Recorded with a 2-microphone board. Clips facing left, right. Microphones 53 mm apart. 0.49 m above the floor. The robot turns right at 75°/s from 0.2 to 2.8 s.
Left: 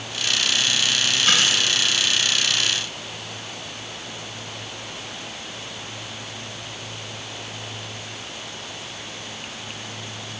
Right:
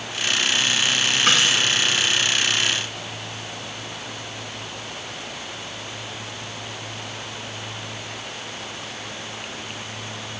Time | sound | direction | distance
1.3 | a dropped coin | 70° right (ahead or behind) | 8 m